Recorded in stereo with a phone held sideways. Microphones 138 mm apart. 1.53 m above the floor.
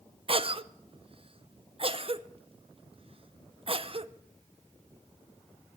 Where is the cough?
40° right (ahead or behind), 0.6 m.